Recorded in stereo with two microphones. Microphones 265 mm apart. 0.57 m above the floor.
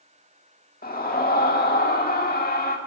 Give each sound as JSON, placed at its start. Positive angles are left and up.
{"t": 0.8, "sound": "a scream", "side_deg": 35, "distance_m": 1.5}